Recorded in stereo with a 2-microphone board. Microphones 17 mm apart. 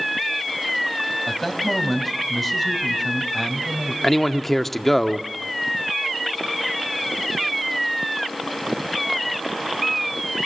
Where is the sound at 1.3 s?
5° left (ahead or behind), 3.5 m.